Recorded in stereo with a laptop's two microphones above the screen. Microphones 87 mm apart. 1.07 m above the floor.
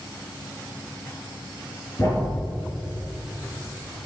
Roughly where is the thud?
Left.